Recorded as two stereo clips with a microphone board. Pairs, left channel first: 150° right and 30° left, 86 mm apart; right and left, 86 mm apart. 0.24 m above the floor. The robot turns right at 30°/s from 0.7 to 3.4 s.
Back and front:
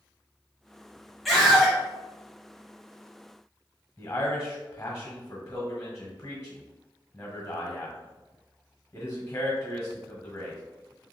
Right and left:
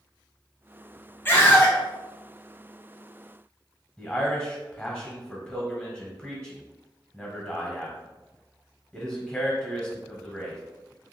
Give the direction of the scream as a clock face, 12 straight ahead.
2 o'clock.